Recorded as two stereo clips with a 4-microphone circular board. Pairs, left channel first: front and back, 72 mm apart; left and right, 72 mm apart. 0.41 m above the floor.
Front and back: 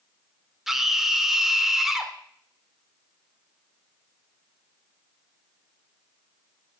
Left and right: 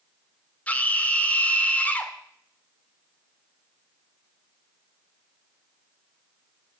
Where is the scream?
100° left, 1.4 m.